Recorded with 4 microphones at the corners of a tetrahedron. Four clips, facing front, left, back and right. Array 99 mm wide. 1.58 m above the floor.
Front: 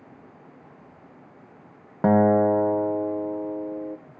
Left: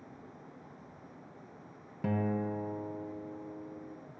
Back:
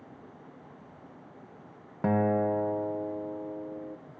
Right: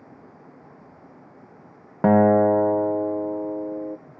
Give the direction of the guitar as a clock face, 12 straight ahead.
2 o'clock.